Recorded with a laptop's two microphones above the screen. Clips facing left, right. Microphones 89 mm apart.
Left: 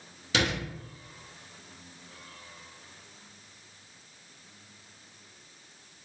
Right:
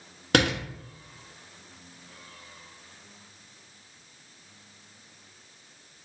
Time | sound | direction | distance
0.3 | a door slam | 60° right (ahead or behind) | 1.0 m